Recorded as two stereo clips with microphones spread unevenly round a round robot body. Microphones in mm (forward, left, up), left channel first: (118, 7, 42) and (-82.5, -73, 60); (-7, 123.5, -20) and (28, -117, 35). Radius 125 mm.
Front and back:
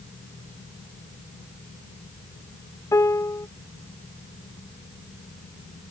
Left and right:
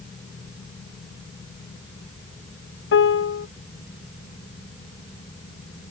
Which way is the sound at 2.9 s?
95° left.